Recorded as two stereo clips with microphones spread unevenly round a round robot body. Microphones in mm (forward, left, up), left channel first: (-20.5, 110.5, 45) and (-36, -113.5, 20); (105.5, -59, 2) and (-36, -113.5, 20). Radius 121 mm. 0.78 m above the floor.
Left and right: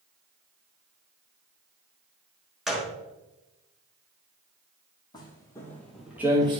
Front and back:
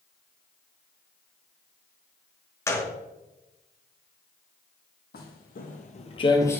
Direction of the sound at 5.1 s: 20° left.